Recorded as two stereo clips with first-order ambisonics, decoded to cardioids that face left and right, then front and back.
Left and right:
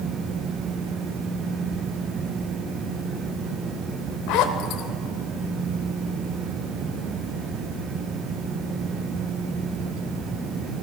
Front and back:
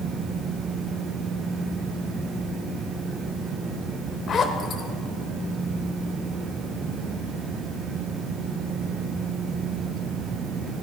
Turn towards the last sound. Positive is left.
turn(degrees=65)